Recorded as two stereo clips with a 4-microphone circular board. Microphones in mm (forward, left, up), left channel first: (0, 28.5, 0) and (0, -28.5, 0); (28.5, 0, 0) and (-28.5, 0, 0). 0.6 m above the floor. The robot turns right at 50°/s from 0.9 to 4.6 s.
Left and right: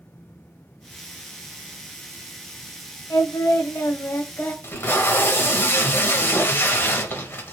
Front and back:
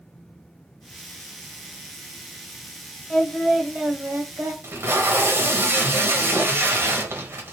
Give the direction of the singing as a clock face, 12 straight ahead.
9 o'clock.